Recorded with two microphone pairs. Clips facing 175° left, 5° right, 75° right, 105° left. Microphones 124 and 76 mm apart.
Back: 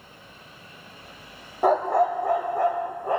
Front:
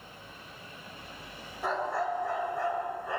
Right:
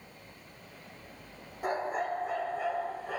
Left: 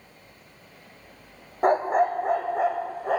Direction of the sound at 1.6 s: 145° left.